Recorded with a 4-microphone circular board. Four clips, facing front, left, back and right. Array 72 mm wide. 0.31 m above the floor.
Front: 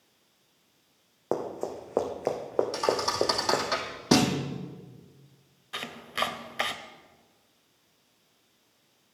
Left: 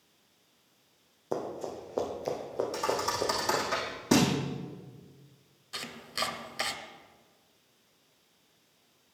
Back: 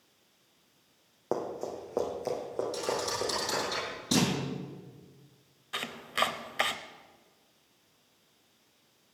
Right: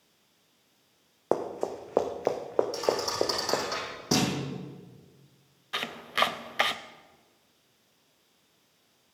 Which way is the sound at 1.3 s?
85° right.